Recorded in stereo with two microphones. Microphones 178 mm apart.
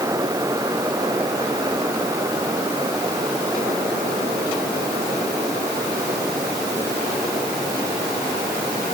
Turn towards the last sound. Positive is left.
No sound to turn to.